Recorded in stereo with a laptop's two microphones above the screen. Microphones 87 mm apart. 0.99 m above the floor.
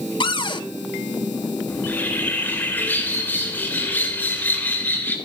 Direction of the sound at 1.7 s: 20° left (ahead or behind).